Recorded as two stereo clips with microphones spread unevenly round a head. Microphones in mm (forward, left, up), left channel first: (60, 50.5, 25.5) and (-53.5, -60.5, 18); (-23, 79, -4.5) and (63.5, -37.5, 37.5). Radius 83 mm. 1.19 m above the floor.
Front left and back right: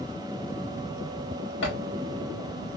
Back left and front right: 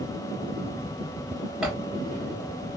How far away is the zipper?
About 1.1 m.